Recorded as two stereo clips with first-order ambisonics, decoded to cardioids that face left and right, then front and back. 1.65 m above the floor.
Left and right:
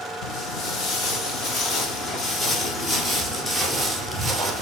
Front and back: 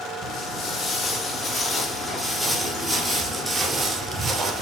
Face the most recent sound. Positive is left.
turn(degrees=-170)